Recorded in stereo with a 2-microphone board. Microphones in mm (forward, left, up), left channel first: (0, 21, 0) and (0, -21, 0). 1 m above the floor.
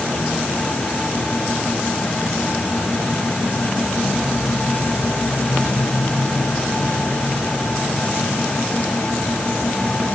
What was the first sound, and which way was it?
Only background noise.